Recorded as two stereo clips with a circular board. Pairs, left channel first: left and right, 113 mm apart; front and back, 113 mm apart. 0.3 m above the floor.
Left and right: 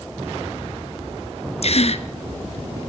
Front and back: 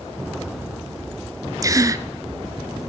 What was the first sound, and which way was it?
A gasp, 120° left.